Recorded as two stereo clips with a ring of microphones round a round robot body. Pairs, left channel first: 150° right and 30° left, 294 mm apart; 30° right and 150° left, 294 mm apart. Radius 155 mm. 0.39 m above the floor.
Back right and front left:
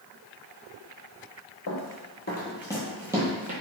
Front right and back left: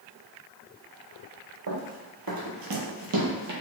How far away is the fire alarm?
I don't hear a fire alarm.